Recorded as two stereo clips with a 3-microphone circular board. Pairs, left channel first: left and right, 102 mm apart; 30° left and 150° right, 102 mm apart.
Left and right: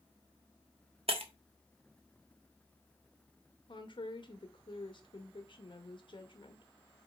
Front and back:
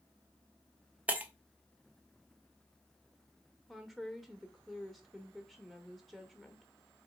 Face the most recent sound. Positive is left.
turn(degrees=120)